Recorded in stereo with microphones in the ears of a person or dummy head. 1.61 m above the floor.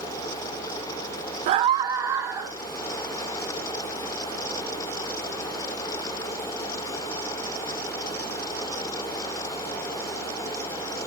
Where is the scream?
40° right (ahead or behind), 0.6 m; by 2.6 s 15° right (ahead or behind), 1.9 m.